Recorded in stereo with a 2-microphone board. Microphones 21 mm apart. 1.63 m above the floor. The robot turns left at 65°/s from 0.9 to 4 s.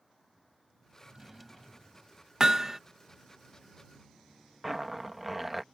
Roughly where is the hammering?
Right.